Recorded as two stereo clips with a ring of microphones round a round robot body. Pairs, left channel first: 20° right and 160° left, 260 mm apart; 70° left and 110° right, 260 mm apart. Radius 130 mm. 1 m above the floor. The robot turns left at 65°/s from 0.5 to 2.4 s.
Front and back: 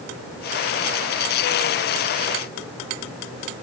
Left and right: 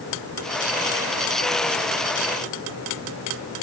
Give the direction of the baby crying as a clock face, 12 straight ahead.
I don't hear a baby crying.